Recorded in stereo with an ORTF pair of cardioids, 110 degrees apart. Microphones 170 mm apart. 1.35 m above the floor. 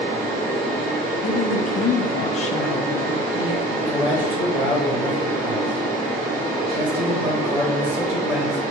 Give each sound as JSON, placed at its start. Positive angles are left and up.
{"t": 0.0, "sound": "a fan", "azimuth_deg": -60, "distance_m": 1.0}
{"t": 1.2, "sound": "a woman speaking", "azimuth_deg": 45, "distance_m": 0.5}
{"t": 3.8, "sound": "a man speaking", "azimuth_deg": -10, "distance_m": 1.2}